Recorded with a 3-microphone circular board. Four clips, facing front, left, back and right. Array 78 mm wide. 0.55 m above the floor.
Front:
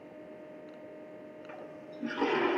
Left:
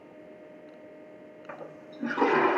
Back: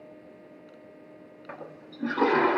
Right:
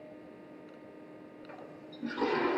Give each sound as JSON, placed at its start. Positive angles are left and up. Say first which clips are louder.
{"t": 1.5, "sound": "a toilet flushing", "louder": "left 7 dB, back 5 dB", "azimuth_deg": 135, "distance_m": 0.8}